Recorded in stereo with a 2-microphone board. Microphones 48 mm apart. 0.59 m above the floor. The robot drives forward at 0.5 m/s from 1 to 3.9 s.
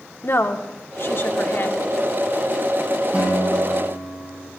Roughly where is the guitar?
Right.